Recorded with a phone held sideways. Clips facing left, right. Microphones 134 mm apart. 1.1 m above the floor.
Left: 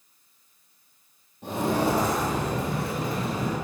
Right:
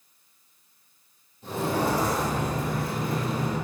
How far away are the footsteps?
About 2.5 m.